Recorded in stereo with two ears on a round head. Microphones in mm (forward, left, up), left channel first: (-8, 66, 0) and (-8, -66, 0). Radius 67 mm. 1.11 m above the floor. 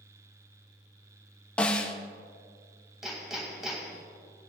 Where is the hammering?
5° right (ahead or behind), 2.5 m.